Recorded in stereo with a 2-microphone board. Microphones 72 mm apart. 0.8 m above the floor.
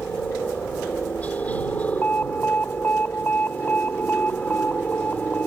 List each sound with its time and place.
0.0 s a helicopter: 20° left (ahead or behind)
2.0 s an alarm: 25° left (ahead or behind)